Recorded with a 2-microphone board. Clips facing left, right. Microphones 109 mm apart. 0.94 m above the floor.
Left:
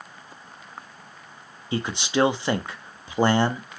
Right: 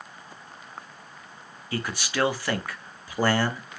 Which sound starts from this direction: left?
A man speaking, at 1.7 s.